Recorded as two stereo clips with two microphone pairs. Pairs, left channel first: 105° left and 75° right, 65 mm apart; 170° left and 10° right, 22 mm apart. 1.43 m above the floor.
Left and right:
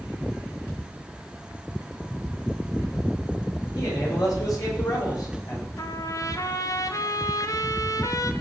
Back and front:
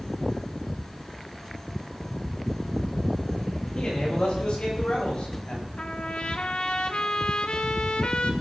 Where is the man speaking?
130° left, 8.5 m; by 5.7 s 135° left, 6.5 m.